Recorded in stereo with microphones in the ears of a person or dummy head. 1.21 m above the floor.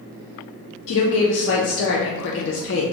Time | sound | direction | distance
0.9 | a woman speaking | 60° left (ahead or behind) | 0.5 m